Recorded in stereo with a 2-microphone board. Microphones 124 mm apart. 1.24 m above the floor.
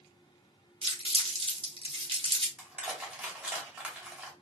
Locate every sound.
0.8 s crumpling: 45° right (ahead or behind), 1.0 m
2.6 s crushing: 10° right (ahead or behind), 1.1 m